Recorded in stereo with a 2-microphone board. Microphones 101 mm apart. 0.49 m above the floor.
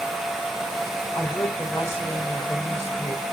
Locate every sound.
1.1 s a woman speaking: 25° left (ahead or behind), 2.0 m